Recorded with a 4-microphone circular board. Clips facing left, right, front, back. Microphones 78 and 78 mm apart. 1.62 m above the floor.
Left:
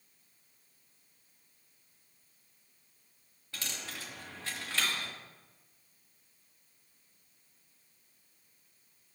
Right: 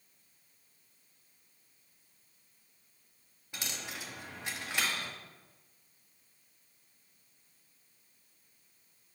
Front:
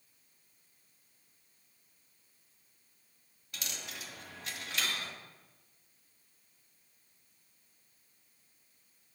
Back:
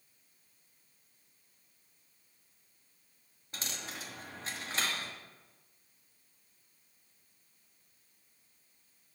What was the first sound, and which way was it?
A dropped coin, 150° right.